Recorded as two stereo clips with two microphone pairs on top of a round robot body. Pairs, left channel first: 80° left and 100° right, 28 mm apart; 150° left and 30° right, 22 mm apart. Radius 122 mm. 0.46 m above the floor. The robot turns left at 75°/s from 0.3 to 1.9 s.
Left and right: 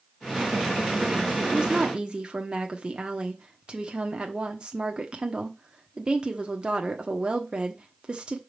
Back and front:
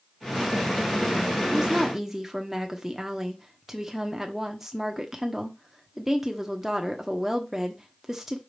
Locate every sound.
1.5 s a woman speaking: 80° right, 1.3 m; by 8.4 s 110° right, 1.3 m